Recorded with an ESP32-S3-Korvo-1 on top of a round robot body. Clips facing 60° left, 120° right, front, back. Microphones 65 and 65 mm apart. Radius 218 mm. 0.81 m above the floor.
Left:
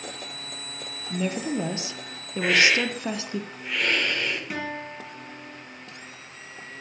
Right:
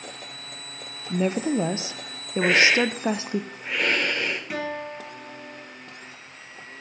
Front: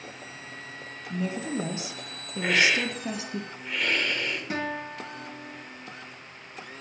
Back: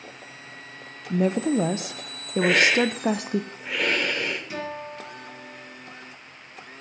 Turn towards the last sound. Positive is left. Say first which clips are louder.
# right 2 dB, front 1 dB
turn(degrees=-30)